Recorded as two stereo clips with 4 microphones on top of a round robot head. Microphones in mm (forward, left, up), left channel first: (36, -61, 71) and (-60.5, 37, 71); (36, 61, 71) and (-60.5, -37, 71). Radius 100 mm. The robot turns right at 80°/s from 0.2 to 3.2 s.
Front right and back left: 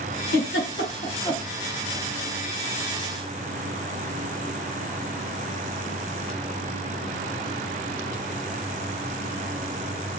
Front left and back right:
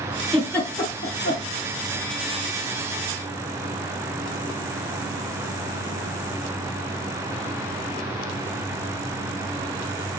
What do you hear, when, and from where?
0.3 s a giggle: 50° right, 3 m; by 1.4 s 40° left, 3 m